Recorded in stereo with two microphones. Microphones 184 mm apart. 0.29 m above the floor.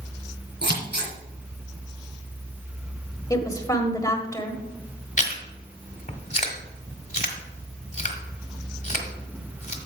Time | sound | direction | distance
0.6 | scissors | 70° right (ahead or behind) | 2.5 m
3.3 | a woman speaking | 20° left (ahead or behind) | 1.6 m
5.2 | chewing | 45° left (ahead or behind) | 1.6 m